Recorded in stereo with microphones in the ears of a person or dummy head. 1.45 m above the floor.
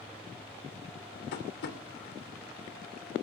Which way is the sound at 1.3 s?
60° left (ahead or behind).